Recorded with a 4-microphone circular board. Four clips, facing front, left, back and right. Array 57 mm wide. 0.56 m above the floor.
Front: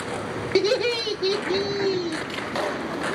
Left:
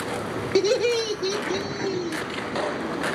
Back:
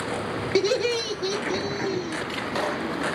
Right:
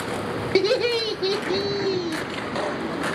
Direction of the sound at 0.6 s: 70° right.